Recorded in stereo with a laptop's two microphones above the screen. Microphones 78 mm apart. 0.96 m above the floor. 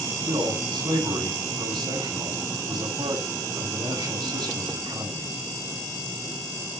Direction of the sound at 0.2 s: 75° right (ahead or behind).